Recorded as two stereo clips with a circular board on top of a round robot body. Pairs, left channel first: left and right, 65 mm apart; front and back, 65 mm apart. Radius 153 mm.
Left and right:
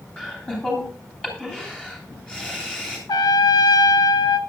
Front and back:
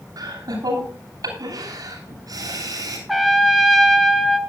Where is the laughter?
165° left, 9.5 m.